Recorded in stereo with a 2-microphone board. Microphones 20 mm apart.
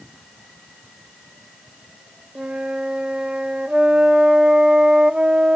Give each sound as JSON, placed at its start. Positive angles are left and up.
{"t": 2.4, "sound": "a flute", "side_deg": -60, "distance_m": 0.7}